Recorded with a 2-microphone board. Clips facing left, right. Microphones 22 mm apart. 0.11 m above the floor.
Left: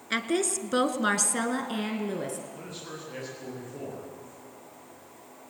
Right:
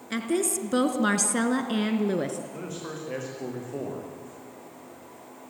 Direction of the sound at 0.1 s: 25° left (ahead or behind).